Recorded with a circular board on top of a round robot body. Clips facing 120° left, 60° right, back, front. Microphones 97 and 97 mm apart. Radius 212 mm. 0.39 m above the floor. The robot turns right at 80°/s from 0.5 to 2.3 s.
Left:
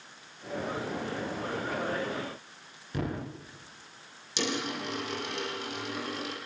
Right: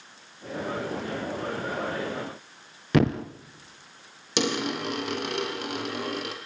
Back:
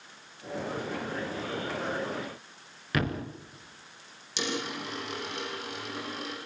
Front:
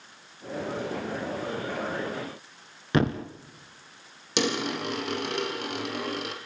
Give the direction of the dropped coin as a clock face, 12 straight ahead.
1 o'clock.